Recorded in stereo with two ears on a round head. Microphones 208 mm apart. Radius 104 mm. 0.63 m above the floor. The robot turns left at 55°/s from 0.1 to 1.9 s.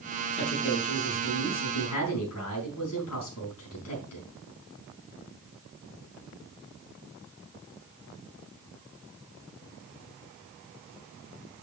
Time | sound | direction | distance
0.3 | a man speaking | 175° right | 5 m